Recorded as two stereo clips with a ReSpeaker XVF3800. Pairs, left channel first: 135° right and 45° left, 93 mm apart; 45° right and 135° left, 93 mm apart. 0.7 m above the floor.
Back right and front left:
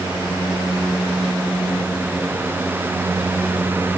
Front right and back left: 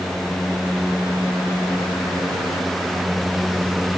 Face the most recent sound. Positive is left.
No sound to turn to.